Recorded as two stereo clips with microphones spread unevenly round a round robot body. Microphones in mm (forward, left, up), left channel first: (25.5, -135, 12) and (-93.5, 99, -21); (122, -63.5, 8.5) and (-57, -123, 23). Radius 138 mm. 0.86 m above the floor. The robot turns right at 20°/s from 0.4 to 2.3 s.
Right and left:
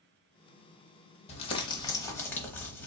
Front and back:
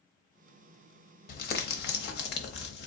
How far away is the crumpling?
About 0.9 m.